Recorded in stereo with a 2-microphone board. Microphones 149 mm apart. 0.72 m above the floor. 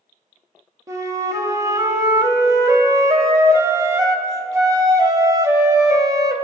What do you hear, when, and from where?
0.9 s a flute: 20° right (ahead or behind), 0.5 m